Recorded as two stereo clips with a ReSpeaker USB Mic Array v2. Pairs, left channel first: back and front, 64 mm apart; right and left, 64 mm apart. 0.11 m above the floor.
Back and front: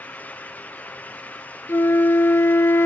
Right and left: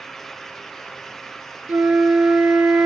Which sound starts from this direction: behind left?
A flute, at 1.7 s.